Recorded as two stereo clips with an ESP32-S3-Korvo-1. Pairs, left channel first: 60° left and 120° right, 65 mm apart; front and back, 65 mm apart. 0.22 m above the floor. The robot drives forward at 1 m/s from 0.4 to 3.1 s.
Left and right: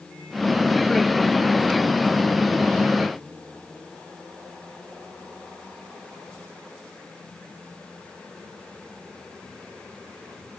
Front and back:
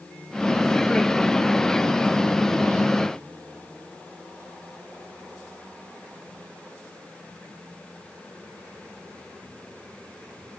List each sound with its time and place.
Only background noise.